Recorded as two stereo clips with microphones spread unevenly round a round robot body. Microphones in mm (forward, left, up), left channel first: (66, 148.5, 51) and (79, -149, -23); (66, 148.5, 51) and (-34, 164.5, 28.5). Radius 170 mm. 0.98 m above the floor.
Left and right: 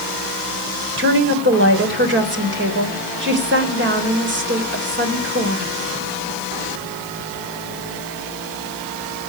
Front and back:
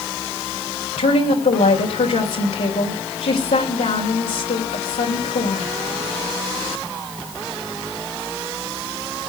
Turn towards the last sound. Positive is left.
turn(degrees=-35)